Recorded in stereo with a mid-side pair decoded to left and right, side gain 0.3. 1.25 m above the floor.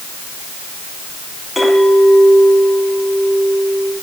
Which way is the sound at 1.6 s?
35° left.